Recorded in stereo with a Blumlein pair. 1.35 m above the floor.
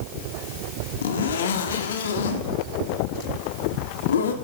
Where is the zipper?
60° left, 2 m.